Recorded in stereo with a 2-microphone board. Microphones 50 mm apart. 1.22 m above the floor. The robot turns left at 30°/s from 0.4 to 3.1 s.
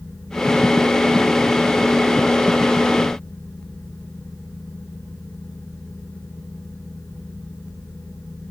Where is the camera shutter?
No camera shutter in this recording.